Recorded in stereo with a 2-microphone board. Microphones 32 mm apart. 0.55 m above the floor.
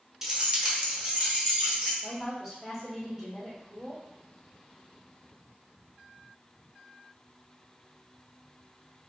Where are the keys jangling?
15° right (ahead or behind), 0.6 m; by 1.9 s 40° right (ahead or behind), 1.7 m.